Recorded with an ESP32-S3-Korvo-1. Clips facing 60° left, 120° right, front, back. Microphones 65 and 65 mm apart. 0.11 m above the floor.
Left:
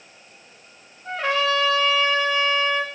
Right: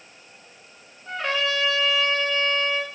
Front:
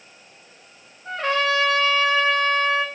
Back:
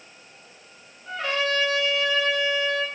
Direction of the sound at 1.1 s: 50° left.